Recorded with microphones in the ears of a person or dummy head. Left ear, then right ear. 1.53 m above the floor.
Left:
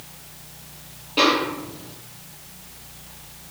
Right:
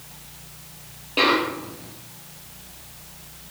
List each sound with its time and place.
1.2 s a snare drum: 10° right (ahead or behind), 6 m